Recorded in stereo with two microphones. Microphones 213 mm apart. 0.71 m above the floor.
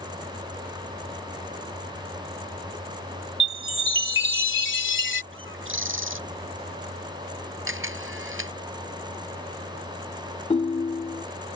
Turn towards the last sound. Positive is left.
turn(degrees=30)  # may be behind; listen again after turning